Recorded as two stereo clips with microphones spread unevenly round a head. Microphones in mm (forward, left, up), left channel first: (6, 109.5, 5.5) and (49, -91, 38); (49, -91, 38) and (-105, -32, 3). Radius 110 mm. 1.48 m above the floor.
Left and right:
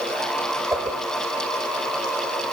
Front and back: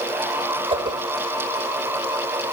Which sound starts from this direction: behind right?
A whoosh, at 0.7 s.